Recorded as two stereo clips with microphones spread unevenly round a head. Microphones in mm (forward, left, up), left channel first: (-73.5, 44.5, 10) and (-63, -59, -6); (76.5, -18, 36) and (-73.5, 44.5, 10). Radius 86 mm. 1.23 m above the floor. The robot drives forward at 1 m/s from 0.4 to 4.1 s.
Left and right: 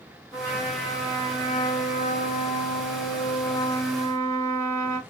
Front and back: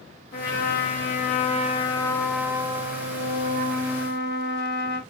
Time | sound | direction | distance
0.3 | a trumpet | 15° left | 2 m